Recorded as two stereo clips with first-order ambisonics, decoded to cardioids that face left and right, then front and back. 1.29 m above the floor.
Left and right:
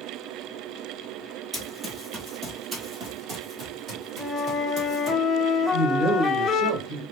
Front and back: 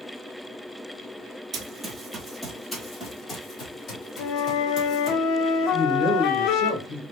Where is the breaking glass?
No breaking glass in this recording.